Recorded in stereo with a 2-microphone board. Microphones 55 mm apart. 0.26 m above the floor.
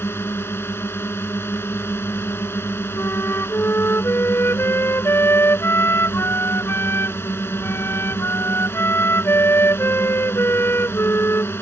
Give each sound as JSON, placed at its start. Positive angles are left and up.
{"t": 0.0, "sound": "a drone", "side_deg": 45}
{"t": 3.0, "sound": "a flute", "side_deg": 50}